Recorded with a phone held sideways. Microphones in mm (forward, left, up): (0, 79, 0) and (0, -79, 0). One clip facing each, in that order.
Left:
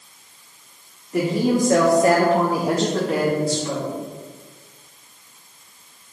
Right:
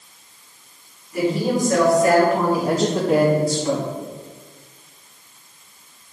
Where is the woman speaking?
65° left (ahead or behind), 2 m; by 3.9 s 55° right (ahead or behind), 1.6 m.